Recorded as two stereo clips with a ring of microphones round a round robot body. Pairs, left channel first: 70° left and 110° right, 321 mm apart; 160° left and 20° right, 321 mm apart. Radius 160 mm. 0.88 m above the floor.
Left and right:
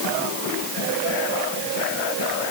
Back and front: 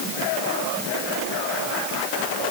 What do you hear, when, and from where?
Only background noise.